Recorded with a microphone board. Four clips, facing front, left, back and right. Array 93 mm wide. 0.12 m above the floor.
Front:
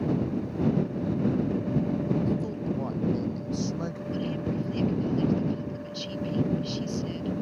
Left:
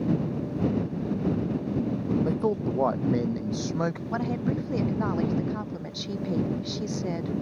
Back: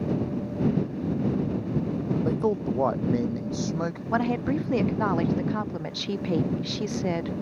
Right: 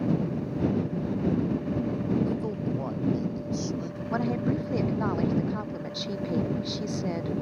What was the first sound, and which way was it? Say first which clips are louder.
A man speaking: left 3 dB, back 4 dB; 150° left.